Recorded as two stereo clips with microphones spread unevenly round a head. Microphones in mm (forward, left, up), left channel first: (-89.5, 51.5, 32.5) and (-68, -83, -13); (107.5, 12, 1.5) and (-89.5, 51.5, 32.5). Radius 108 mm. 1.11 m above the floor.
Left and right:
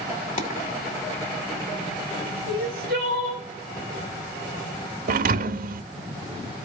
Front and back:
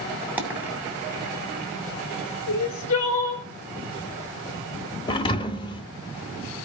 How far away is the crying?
About 3 m.